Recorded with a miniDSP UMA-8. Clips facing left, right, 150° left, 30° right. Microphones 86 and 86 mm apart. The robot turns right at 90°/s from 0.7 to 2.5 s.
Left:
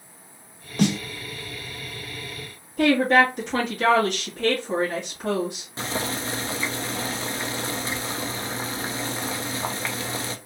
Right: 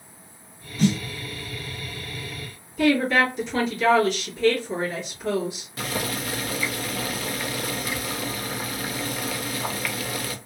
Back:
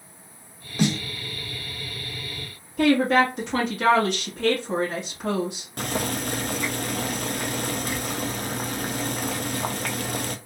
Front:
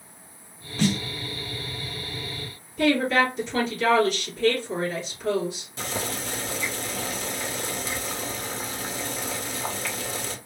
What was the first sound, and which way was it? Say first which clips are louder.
A snare drum: even, back 1 dB; 75° left.